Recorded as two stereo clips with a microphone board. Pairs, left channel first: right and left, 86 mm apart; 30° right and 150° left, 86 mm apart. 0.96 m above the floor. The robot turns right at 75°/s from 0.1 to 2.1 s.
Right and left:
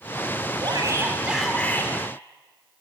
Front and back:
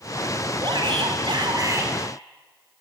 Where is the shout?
115° left, 3.5 m; by 1.9 s 145° right, 3.5 m.